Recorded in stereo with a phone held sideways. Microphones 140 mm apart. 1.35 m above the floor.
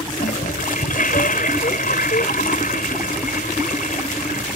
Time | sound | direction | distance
0.1 | a toilet flushing | 85° left | ?